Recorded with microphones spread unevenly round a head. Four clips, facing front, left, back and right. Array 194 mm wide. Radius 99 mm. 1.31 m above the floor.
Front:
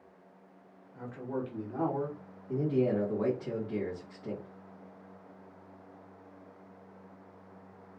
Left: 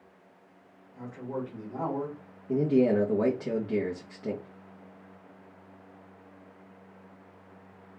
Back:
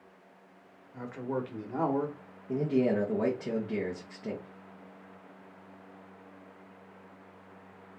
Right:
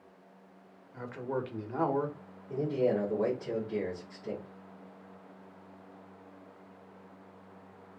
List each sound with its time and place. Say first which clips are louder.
0.9 s a man speaking: right 1 dB, back 2 dB; 145° right, 1.5 m
2.5 s a man speaking: left 6 dB, back 1 dB; 130° left, 1.5 m